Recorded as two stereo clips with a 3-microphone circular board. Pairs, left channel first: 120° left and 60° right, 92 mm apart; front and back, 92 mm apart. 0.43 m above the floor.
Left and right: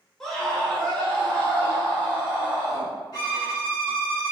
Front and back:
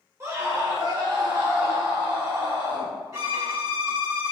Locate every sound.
0.2 s a scream: 160° right, 1.0 m; by 2.9 s 175° right, 2 m
3.1 s a violin: 145° left, 1.9 m